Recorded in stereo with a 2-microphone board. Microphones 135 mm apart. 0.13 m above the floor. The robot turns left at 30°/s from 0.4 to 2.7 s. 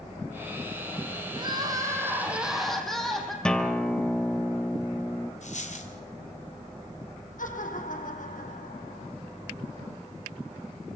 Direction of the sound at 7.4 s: 75° left (ahead or behind).